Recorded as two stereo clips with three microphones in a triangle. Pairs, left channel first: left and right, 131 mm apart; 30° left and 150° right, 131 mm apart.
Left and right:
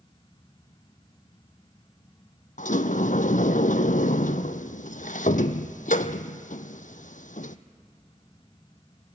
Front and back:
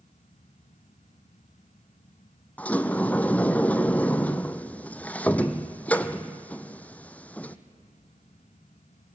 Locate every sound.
2.6 s a sliding door: 110° left, 0.9 m